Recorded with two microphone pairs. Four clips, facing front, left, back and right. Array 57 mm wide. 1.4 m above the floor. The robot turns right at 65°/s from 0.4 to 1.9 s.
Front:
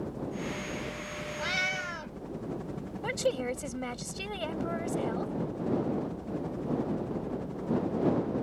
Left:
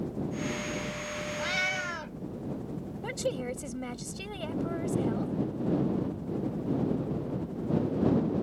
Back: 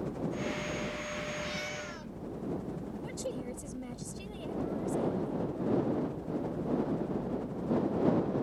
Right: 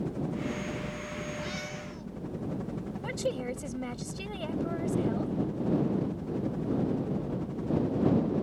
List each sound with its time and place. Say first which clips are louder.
0.0 s a helicopter: even, back 1 dB; 140° right; by 8.4 s 40° right
1.4 s a cat meowing: left 7 dB, front 6 dB; 30° left; by 2.2 s 60° left
3.0 s a woman speaking: even, front 11 dB; straight ahead